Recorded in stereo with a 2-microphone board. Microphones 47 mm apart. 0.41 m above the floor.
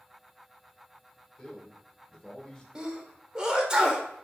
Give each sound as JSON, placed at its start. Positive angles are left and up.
{"t": 1.4, "sound": "a man speaking", "side_deg": 15, "distance_m": 1.0}
{"t": 2.8, "sound": "a sneeze", "side_deg": -15, "distance_m": 0.9}